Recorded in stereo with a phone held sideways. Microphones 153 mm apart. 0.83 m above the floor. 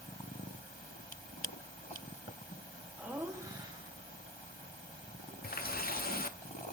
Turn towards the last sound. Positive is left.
turn(degrees=75)  # may be behind; listen again after turning